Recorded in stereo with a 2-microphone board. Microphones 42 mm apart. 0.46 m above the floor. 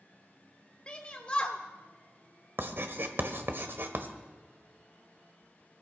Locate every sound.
0.9 s a shout: 25° left (ahead or behind), 1.1 m
2.6 s writing: 55° right (ahead or behind), 1.5 m